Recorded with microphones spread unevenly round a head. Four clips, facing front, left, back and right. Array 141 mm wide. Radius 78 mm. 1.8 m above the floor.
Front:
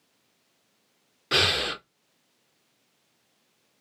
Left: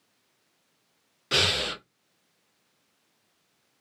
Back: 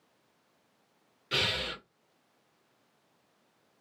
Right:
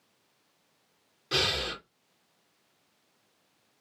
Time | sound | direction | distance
1.3 | breathing | 30° left | 0.8 m